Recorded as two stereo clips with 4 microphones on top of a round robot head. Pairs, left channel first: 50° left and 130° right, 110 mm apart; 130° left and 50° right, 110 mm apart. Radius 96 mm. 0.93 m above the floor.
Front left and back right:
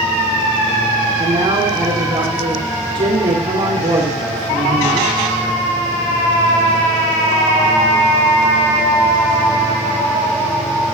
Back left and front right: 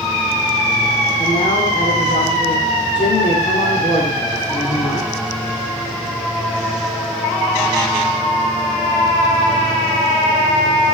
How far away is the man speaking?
About 2.5 m.